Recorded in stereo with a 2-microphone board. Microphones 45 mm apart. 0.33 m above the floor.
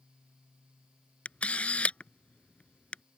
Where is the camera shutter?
30° left (ahead or behind).